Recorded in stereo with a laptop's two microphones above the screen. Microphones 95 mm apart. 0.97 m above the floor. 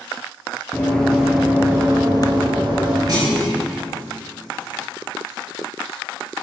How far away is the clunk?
About 1.1 m.